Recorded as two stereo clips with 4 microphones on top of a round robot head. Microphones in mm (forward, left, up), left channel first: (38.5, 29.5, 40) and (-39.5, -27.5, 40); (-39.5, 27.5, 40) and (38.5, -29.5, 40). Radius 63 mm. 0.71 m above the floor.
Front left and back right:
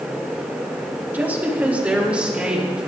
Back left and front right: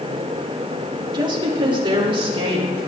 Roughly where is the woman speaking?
Right.